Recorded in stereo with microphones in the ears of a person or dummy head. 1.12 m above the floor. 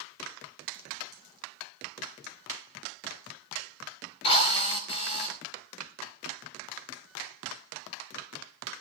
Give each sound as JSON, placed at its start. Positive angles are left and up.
{"t": 4.2, "sound": "a drill", "side_deg": 35, "distance_m": 4.5}